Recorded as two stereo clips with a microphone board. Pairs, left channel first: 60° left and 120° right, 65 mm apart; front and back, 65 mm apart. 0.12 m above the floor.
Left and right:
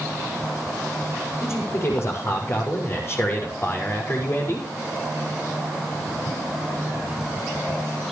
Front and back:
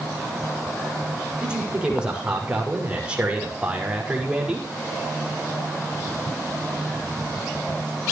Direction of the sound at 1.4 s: 105° left.